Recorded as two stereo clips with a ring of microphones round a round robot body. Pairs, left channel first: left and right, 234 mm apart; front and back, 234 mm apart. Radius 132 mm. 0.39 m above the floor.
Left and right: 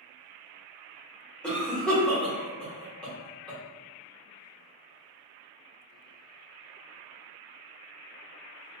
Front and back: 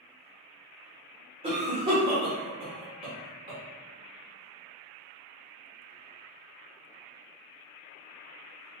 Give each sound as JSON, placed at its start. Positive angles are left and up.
{"t": 1.4, "sound": "a cough", "azimuth_deg": 170, "distance_m": 0.9}